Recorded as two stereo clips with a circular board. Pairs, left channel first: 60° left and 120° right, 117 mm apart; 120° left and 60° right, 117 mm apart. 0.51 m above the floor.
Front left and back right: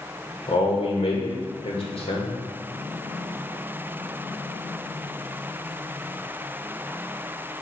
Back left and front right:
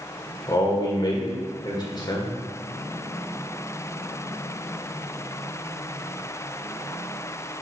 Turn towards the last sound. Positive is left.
turn(degrees=75)